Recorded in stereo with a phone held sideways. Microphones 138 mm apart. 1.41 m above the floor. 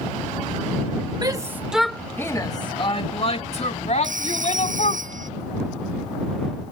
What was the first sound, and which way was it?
A shout, 30° right (ahead or behind).